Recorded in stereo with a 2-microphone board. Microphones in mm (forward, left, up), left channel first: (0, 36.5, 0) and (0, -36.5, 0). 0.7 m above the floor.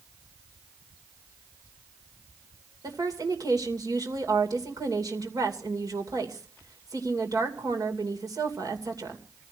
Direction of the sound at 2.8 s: 60° right (ahead or behind).